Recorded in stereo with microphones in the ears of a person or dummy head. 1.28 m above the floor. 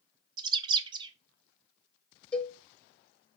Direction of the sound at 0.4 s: 25° right (ahead or behind).